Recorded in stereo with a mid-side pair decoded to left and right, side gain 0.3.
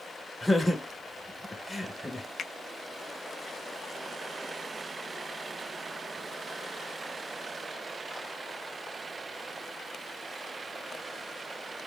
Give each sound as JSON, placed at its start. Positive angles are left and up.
{"t": 0.4, "sound": "laughter", "azimuth_deg": 10, "distance_m": 1.0}
{"t": 2.4, "sound": "a finger snap", "azimuth_deg": 60, "distance_m": 0.6}